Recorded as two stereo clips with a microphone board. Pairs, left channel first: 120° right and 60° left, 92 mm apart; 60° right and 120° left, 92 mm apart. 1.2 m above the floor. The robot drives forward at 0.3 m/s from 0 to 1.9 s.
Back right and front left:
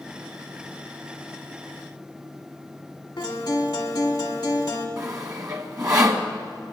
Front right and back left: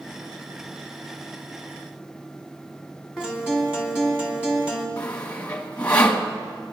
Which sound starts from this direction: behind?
A guitar, at 3.2 s.